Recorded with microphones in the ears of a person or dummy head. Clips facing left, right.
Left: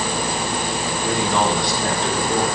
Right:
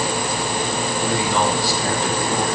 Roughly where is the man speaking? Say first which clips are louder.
Left 1 dB; centre.